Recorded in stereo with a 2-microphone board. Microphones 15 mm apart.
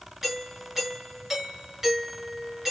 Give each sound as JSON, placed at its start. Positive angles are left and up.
{"t": 0.2, "sound": "a doorbell", "side_deg": -25, "distance_m": 3.0}